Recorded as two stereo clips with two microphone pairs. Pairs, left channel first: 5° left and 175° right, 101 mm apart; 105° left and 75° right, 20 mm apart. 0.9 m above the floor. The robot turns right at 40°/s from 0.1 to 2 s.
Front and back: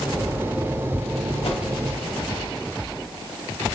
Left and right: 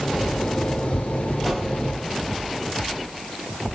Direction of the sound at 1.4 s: 10° left.